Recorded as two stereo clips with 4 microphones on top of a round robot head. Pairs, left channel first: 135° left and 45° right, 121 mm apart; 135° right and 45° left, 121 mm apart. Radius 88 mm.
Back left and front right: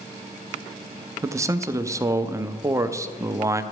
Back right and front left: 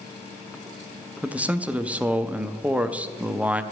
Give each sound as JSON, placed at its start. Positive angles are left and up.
{"t": 1.2, "sound": "a man speaking", "azimuth_deg": -20, "distance_m": 0.6}